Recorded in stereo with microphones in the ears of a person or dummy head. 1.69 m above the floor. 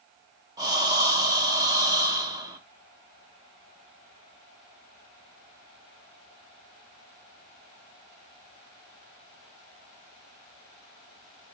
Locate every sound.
0.6 s breathing: 20° right (ahead or behind), 1.1 m